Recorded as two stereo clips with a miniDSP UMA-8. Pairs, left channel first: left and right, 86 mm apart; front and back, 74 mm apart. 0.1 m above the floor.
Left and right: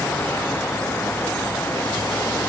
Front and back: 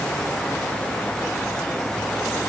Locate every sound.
Only background noise.